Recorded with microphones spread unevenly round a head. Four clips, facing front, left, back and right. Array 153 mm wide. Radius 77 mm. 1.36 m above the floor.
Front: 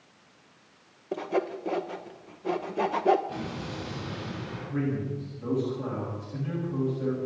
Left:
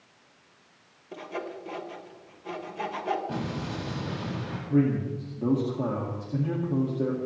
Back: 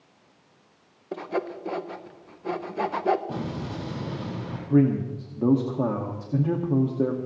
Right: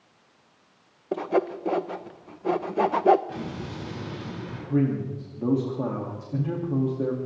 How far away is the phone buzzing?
No phone buzzing in this recording.